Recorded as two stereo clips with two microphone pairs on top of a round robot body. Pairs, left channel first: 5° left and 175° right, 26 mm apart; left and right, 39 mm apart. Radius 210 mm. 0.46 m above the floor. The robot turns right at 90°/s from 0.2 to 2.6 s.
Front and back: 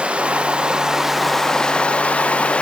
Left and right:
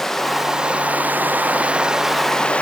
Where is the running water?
175° left, 0.9 m; by 2.6 s 30° left, 0.9 m.